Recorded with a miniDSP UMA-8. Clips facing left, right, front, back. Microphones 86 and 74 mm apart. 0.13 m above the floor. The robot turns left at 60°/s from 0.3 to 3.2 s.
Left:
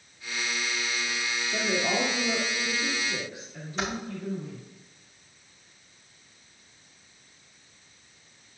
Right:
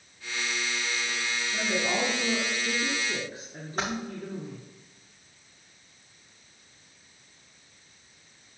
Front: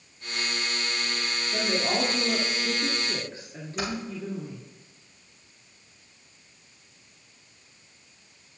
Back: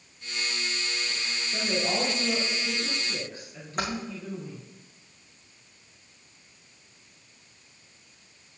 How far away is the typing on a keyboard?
About 3.5 m.